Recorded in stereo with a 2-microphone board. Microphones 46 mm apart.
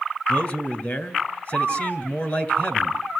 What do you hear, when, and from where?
0.3 s a man speaking: 40° left (ahead or behind), 3 m